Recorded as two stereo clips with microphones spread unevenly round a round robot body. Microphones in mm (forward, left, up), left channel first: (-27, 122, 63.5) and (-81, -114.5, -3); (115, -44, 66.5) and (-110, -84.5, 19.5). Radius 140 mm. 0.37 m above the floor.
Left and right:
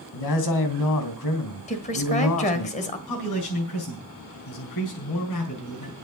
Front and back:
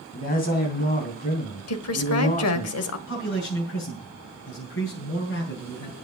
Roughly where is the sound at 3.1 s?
Ahead left.